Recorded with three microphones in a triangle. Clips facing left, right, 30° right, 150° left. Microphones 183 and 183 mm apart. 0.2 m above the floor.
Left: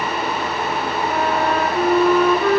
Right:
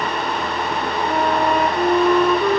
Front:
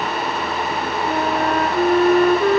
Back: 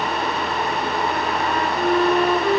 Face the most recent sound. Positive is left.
turn(degrees=-10)